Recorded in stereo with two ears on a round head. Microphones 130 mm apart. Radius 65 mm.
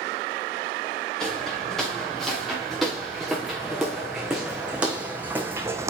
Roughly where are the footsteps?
Centre.